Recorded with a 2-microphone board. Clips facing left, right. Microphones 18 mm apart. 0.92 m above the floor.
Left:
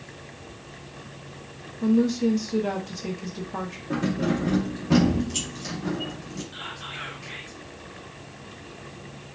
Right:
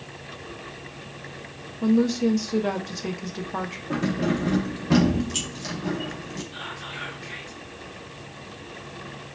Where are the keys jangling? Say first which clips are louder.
Even; 20° right (ahead or behind), 1.1 m.